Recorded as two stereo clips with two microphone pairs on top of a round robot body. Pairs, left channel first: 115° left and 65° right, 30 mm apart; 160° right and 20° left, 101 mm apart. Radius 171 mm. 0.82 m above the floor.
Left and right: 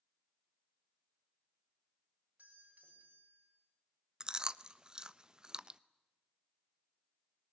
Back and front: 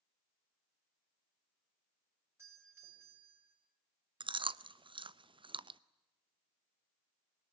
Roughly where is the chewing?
Ahead.